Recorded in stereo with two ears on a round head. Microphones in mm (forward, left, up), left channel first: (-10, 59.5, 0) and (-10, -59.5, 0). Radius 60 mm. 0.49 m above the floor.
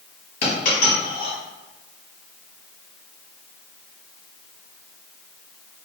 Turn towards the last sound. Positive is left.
turn(degrees=85)